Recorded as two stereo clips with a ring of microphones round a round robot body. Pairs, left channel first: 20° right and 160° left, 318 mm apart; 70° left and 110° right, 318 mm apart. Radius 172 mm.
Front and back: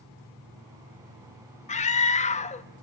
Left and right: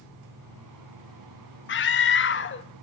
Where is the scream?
35° left, 0.8 m.